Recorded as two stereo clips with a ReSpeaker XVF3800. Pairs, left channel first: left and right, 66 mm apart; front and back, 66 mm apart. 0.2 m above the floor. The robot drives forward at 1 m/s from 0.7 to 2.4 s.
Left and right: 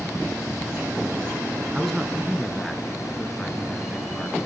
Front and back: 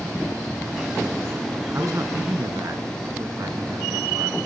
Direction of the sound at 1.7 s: Straight behind.